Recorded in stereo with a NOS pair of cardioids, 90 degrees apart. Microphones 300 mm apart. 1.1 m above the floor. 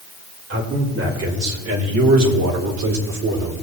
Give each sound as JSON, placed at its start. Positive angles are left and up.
{"t": 0.5, "sound": "a man speaking", "azimuth_deg": -45, "distance_m": 3.5}